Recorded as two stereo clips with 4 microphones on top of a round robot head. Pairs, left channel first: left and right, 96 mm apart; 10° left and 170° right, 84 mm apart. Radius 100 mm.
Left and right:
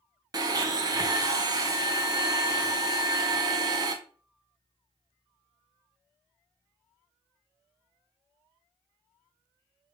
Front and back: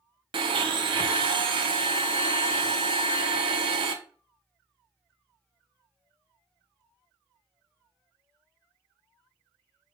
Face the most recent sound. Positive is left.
turn(degrees=-145)